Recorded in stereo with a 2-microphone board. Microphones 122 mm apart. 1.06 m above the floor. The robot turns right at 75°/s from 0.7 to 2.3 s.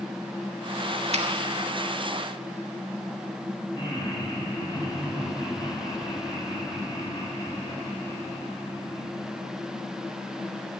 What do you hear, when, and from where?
1.1 s a finger snap: 60° right (ahead or behind), 1.5 m; by 1.3 s 50° right (ahead or behind), 1.5 m
3.7 s laughter: 35° left (ahead or behind), 4.5 m